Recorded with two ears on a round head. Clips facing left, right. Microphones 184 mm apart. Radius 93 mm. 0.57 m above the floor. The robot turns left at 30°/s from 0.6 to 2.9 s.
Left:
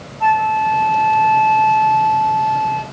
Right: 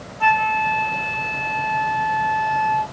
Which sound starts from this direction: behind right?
A flute, at 0.2 s.